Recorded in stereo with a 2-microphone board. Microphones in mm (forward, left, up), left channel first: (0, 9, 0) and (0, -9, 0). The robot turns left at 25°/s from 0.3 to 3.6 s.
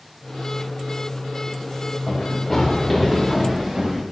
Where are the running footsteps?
50° left (ahead or behind), 6 m; by 4.0 s 10° right (ahead or behind), 6.5 m.